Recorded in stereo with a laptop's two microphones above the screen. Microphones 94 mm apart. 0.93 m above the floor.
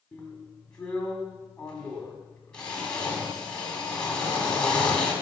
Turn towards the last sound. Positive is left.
turn(degrees=10)  # may be behind; listen again after turning